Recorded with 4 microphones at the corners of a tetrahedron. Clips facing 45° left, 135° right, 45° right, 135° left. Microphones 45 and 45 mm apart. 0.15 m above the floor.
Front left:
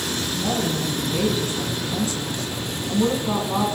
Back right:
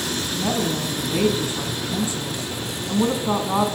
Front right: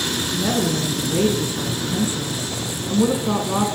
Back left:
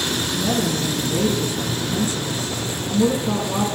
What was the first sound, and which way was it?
A woman speaking, 90° right.